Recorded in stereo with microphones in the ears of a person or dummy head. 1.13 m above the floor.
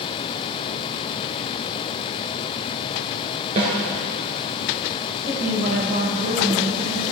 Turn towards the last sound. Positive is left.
turn(degrees=-50)  # may be behind; listen again after turning